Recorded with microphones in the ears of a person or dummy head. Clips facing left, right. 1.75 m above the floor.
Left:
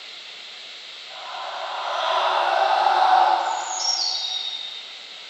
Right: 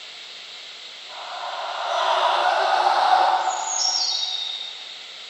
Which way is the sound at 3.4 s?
55° right (ahead or behind).